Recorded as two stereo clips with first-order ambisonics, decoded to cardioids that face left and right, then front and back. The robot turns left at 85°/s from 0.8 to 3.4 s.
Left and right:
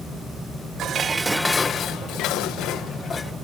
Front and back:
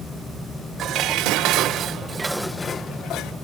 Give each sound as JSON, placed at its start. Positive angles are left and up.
{"t": 0.8, "sound": "dishes clattering", "azimuth_deg": -135}